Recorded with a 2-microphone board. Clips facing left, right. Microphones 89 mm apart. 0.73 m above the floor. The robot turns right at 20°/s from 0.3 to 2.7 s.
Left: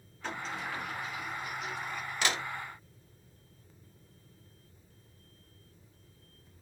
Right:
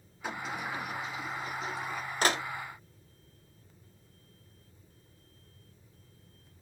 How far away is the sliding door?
About 1.4 m.